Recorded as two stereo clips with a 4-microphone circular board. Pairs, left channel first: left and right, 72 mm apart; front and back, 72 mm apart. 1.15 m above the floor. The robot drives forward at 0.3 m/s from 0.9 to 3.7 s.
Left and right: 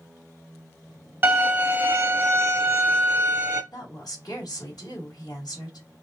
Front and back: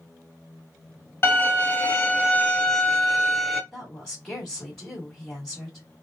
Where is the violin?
40° right, 1.2 m; by 3.6 s 95° right, 1.0 m.